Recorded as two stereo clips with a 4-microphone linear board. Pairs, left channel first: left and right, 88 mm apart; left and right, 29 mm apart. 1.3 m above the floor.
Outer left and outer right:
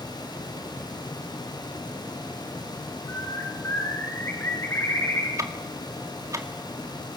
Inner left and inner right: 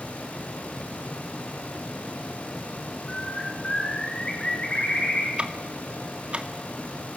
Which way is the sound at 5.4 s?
35° right (ahead or behind).